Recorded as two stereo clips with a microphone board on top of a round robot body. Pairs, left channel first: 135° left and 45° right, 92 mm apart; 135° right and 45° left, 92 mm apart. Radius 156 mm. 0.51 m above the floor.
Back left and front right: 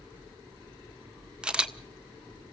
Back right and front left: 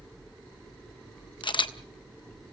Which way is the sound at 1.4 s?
125° right.